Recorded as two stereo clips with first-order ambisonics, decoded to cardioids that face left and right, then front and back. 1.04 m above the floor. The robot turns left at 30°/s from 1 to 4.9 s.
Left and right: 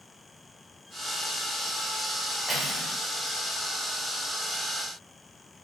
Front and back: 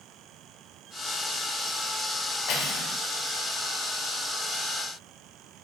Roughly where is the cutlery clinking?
Ahead.